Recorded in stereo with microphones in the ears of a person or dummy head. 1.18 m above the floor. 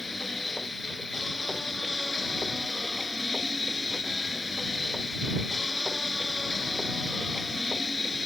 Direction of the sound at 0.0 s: 5° left (ahead or behind).